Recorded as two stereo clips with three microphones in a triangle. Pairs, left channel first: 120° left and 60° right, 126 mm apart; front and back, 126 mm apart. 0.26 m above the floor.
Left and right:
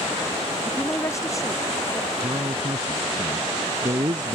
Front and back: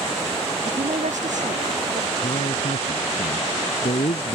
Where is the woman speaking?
175° right; by 2.1 s straight behind.